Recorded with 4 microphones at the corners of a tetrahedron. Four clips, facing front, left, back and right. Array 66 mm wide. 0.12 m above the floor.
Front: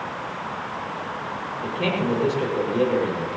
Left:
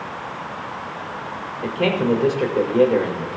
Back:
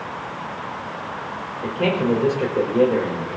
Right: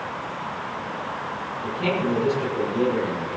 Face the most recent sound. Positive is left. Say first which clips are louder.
# left 5 dB, back 4 dB
turn(degrees=105)